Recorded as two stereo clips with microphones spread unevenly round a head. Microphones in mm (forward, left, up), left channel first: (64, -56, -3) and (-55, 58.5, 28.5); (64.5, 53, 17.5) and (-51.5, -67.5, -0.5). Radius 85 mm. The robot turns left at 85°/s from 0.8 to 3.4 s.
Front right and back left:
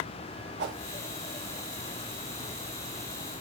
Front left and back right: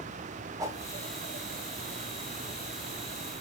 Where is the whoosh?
160° left, 0.9 m.